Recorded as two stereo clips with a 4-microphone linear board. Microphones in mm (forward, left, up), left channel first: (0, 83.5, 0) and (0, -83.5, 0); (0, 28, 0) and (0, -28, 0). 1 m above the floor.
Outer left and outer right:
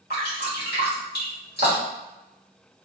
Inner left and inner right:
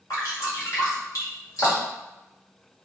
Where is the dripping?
80° left, 1.2 m.